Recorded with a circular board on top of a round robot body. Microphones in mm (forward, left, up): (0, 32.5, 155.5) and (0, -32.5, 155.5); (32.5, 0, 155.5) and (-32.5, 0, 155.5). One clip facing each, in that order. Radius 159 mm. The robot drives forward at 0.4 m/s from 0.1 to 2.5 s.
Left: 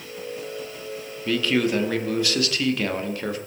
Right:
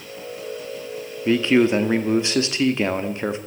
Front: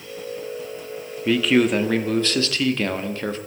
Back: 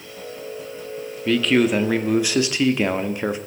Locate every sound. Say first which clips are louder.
1.2 s a man speaking: right 5 dB, even; 75° right, 1.4 m; by 3.4 s 125° right, 1.4 m